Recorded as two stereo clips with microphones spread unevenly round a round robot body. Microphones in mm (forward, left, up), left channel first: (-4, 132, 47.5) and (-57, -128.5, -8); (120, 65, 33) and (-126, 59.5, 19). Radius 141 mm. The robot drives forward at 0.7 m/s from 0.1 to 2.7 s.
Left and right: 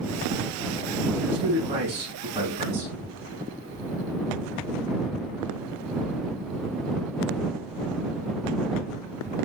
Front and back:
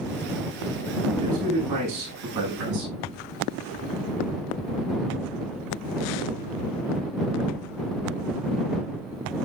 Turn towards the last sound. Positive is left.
turn(degrees=-170)